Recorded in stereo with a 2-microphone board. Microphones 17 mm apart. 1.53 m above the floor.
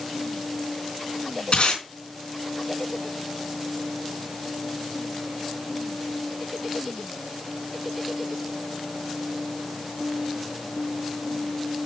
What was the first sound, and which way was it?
Tape being pulled, 70° left (ahead or behind).